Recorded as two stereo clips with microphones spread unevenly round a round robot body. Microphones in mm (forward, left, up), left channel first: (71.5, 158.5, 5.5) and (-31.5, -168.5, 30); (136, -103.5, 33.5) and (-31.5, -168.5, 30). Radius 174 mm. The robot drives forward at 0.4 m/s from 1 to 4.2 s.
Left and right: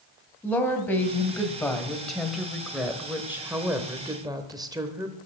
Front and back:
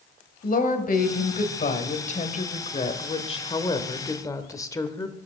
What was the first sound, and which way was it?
A woman speaking, 10° right.